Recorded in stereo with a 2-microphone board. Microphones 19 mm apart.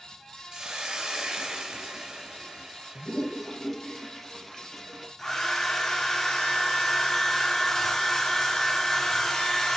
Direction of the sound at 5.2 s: 20° left (ahead or behind).